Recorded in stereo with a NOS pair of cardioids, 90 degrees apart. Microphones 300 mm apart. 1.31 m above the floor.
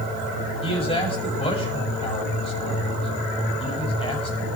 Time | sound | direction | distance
0.6 | a man speaking | 20° left | 8.5 m